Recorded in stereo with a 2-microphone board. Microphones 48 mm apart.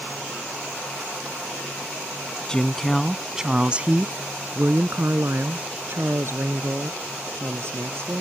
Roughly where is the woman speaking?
Centre.